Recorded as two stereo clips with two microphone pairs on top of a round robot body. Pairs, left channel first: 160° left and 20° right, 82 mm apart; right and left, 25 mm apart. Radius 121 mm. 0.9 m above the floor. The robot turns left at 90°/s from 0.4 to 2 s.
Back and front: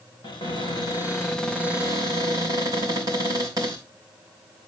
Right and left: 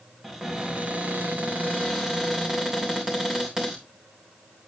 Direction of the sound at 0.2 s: 170° left.